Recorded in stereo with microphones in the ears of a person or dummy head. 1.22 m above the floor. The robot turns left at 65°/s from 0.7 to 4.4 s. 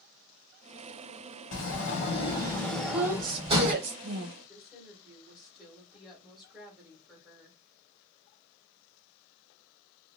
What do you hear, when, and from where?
1.5 s a sliding door: 85° left, 1.4 m; by 3.7 s 60° right, 1.4 m
2.9 s a woman speaking: straight ahead, 1.0 m; by 4.3 s 90° right, 1.0 m
4.4 s a woman speaking: 5° left (ahead or behind), 1.6 m